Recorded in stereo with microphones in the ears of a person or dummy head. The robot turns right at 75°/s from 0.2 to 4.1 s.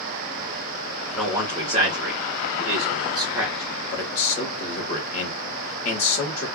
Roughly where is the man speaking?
Centre.